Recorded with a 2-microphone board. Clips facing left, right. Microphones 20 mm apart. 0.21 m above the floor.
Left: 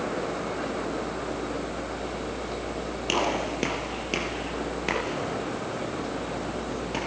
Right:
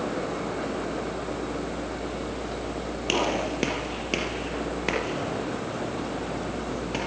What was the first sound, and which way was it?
A gunshot, 5° right (ahead or behind).